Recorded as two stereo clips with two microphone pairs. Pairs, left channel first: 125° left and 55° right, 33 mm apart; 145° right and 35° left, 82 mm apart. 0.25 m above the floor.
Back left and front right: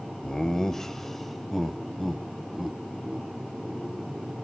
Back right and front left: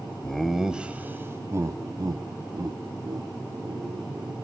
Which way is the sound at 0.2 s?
155° left.